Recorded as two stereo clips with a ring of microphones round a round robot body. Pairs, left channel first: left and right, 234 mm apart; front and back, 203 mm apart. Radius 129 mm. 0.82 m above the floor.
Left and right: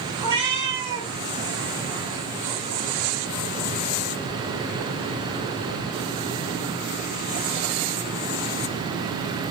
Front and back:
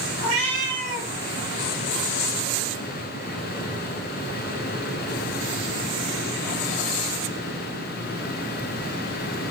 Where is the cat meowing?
160° right, 1.6 m.